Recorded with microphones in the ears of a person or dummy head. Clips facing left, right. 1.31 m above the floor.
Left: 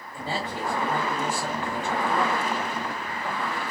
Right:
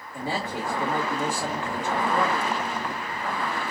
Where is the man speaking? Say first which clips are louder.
Right 1 dB; 10° right (ahead or behind), 0.6 m.